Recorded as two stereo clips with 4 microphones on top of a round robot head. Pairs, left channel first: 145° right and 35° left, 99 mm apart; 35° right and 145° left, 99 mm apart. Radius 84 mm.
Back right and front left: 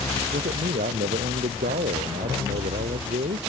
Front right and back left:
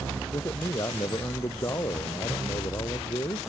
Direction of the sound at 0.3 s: 30° left.